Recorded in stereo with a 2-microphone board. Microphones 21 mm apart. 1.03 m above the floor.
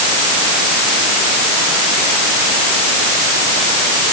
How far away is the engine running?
No engine running in this recording.